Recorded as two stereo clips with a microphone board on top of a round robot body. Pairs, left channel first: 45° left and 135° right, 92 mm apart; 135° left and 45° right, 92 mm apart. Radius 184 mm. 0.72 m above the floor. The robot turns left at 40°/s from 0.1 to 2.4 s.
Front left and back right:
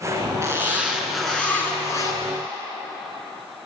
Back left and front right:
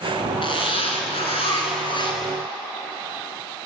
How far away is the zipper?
About 4.5 m.